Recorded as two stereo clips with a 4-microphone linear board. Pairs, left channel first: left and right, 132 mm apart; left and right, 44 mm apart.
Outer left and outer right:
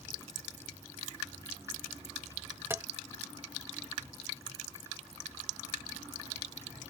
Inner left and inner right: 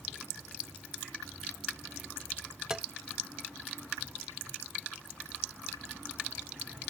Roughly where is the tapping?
Centre.